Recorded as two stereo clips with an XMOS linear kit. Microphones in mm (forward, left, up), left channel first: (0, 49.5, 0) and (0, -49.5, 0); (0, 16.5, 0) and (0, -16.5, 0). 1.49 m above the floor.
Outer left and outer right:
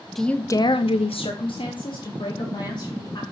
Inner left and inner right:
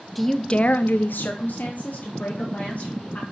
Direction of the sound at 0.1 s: Centre (ahead or behind).